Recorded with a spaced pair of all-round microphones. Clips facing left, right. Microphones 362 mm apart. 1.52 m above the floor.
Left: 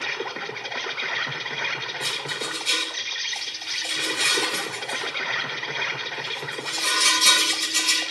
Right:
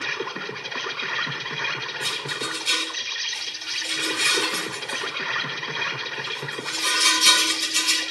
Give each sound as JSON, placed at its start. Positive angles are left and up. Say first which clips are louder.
{"t": 0.0, "sound": "an insect", "louder": "right 1 dB", "side_deg": -20, "distance_m": 0.9}
{"t": 2.0, "sound": "a rattle", "louder": "right 1 dB", "side_deg": -25, "distance_m": 4.5}